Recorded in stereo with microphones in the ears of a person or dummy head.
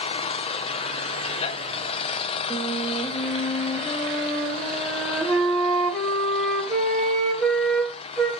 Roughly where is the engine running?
Left.